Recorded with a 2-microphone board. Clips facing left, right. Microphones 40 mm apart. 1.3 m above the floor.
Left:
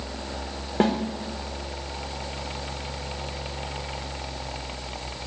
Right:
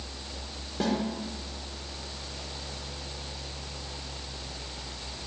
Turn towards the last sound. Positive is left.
turn(degrees=55)  # may be behind; listen again after turning